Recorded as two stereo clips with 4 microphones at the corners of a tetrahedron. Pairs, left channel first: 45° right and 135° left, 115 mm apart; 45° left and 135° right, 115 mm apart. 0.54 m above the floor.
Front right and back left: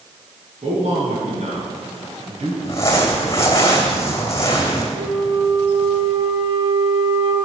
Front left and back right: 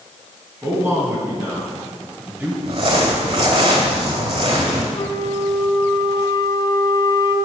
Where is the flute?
100° left, 1.5 m.